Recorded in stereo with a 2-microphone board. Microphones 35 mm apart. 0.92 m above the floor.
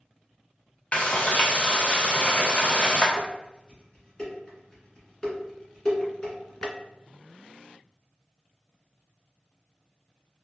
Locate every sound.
0.9 s frying: 40° left (ahead or behind), 0.6 m
3.2 s dishes clattering: 30° left (ahead or behind), 1.6 m